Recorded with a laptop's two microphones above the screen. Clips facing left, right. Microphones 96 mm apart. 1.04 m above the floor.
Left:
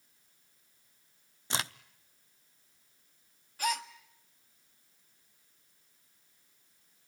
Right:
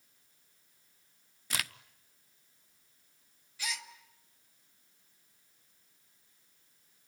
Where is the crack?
25° left (ahead or behind), 0.5 m.